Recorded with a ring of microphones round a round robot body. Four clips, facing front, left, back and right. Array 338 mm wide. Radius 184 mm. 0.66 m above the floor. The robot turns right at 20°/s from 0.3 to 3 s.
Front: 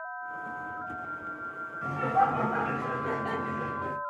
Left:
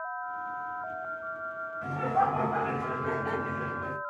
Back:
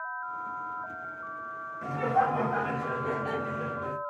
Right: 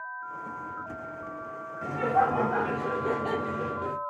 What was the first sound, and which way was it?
Laughter, 115° right.